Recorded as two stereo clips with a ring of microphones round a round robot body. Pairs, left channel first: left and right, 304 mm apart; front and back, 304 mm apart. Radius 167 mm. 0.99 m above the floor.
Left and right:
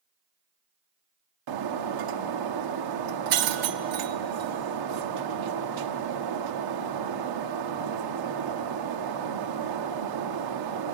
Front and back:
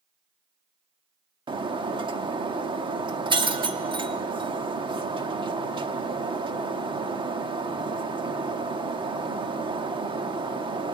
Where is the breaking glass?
105° right, 1.3 m.